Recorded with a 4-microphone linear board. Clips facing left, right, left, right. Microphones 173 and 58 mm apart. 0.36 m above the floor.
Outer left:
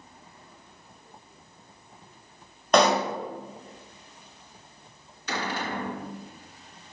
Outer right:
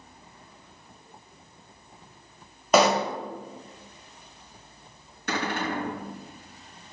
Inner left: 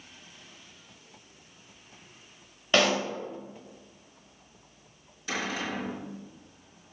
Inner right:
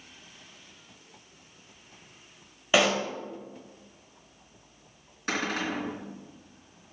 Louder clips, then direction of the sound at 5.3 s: Outer right 2 dB, inner right 2 dB; 55° right (ahead or behind).